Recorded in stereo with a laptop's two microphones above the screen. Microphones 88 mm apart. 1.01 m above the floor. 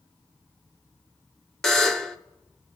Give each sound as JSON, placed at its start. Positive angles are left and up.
{"t": 1.6, "sound": "a buzzer", "side_deg": 5, "distance_m": 0.7}